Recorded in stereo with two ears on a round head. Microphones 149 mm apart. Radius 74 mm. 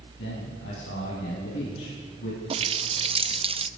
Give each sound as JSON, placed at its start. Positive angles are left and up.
{"t": 0.2, "sound": "a man speaking", "side_deg": 85, "distance_m": 6.0}
{"t": 2.5, "sound": "a running tap", "side_deg": -35, "distance_m": 0.6}